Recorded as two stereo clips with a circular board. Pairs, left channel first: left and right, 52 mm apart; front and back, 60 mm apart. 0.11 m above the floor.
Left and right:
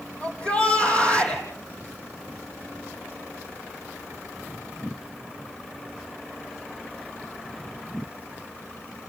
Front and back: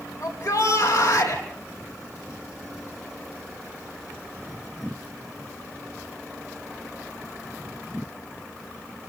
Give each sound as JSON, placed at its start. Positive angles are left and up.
{"t": 0.2, "sound": "a shout", "azimuth_deg": 25, "distance_m": 4.5}